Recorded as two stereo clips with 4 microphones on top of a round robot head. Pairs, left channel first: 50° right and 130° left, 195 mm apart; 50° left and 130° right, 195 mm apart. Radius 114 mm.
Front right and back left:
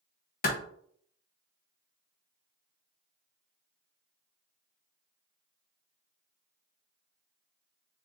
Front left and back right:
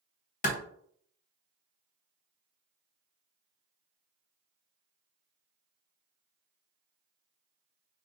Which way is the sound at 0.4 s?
5° right.